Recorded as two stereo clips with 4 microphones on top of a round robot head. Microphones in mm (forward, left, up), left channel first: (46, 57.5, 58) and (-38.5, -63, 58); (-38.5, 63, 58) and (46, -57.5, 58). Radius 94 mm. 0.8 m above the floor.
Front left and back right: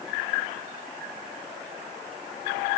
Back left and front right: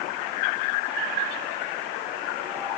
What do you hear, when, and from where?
Only background noise.